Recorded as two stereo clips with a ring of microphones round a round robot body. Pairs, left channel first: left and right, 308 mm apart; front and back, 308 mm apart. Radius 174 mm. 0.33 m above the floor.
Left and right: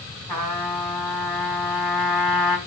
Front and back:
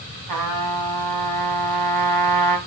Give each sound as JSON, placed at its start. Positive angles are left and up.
{"t": 0.3, "sound": "a trumpet", "azimuth_deg": 170, "distance_m": 3.5}